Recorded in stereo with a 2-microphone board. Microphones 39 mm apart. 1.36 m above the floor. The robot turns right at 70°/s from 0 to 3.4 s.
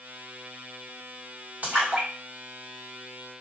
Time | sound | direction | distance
1.6 | a splash | 45° right (ahead or behind) | 1.9 m